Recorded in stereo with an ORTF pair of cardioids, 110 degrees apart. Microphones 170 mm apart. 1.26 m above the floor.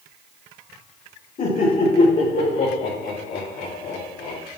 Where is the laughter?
50° left, 4.5 m; by 4.4 s 75° left, 4.5 m.